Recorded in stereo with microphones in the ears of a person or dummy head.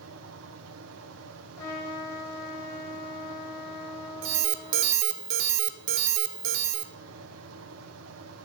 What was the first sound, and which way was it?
A fan, 70° right (ahead or behind).